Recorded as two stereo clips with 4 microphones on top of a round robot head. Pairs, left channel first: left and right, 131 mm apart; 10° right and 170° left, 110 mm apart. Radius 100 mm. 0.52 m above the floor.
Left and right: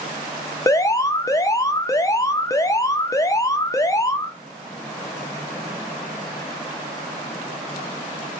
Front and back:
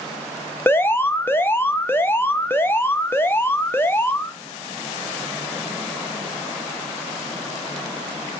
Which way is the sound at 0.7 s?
50° left.